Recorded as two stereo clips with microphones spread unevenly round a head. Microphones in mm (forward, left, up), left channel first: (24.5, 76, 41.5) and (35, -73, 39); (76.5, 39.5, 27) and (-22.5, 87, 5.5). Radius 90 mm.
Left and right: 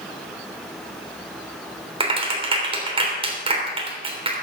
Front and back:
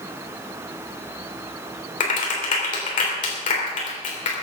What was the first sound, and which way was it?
A clap, 35° right.